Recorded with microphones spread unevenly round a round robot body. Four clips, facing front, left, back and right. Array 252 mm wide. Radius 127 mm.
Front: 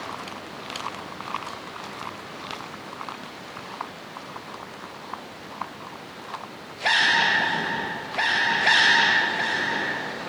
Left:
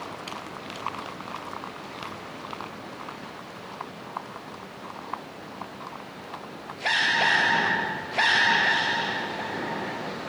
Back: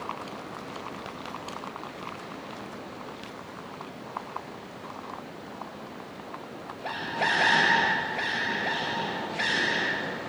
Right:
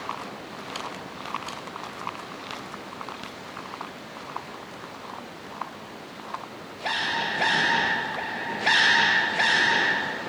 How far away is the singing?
I don't hear singing.